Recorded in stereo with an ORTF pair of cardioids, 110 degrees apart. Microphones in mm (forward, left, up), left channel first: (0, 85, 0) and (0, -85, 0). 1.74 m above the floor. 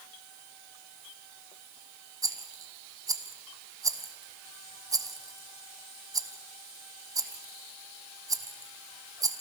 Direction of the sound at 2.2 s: 20° right.